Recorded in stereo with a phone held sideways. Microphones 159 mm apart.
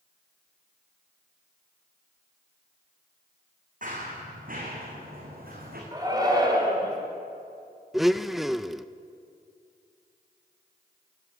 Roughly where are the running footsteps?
Right.